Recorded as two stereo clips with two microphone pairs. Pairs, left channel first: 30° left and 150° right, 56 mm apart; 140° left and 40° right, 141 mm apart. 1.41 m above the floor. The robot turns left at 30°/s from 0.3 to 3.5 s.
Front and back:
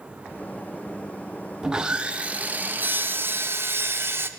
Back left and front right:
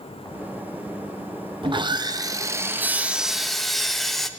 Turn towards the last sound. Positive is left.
turn(degrees=-130)